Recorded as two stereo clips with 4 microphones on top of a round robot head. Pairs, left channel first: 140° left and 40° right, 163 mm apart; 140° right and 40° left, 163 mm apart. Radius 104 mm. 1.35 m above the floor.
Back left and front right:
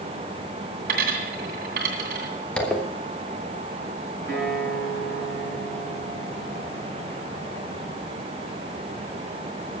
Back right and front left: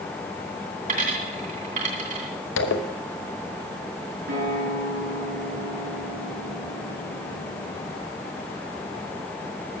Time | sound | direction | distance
0.9 | a dropped coin | 5° right | 2.5 m
2.6 | a zipper | 135° right | 1.2 m
4.3 | a guitar | 65° left | 6.5 m